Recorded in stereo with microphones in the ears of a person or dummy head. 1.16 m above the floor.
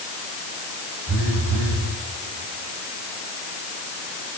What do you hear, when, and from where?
1.1 s a phone buzzing: 65° right (ahead or behind), 4.5 m